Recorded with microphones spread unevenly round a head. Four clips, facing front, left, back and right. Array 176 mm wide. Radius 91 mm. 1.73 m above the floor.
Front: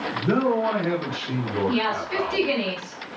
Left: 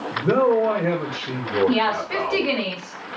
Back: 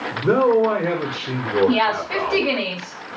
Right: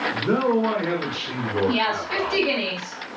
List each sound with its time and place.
0.1 s a man speaking: 175° left, 2 m
1.7 s a woman speaking: 165° left, 3 m